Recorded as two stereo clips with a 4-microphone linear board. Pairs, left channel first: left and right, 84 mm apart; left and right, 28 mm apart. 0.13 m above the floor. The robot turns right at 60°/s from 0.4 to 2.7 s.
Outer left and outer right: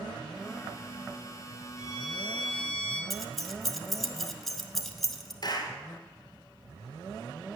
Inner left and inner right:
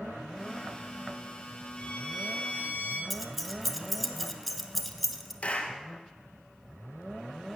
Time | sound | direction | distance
1.8 | a violin | 45° left | 4 m
3.1 | keys jangling | centre (ahead or behind) | 1.2 m
5.4 | a clap | 50° left (ahead or behind) | 2 m